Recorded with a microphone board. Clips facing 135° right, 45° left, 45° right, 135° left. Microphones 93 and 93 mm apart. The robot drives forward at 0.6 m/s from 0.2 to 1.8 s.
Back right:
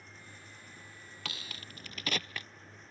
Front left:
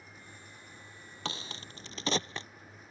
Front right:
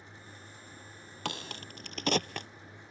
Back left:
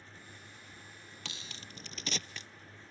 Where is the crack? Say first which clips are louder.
Front left 6 dB, front right 12 dB; 15° right; by 2.5 s 20° right.